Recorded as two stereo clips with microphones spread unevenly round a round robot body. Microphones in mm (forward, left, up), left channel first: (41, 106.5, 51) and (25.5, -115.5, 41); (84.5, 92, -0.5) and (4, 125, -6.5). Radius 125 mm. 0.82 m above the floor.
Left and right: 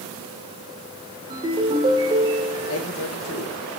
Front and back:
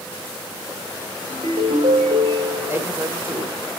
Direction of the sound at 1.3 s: 165° right.